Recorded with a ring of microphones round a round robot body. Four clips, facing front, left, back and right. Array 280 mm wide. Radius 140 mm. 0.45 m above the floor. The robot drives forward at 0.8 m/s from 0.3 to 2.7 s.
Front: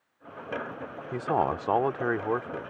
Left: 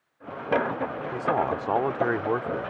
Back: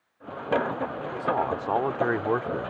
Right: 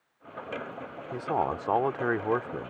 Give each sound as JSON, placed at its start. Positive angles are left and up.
{"t": 1.1, "sound": "a man speaking", "azimuth_deg": 10}